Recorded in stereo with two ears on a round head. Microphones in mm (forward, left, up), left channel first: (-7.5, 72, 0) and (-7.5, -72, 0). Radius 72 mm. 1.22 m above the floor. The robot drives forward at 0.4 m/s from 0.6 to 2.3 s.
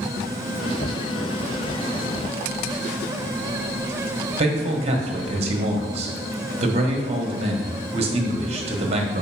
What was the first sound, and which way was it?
A man speaking, 40° right (ahead or behind).